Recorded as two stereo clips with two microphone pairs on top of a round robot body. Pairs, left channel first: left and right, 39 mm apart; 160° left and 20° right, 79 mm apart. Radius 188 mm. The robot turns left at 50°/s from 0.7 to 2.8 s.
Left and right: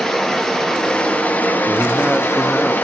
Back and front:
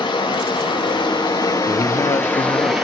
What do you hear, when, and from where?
0.0 s running water: 175° left, 4.5 m; by 2.9 s 70° left, 4.5 m
1.6 s a man speaking: 165° right, 1.6 m; by 2.8 s 140° left, 1.6 m